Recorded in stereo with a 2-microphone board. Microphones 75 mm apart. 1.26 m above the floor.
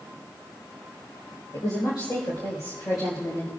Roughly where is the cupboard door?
I don't hear a cupboard door.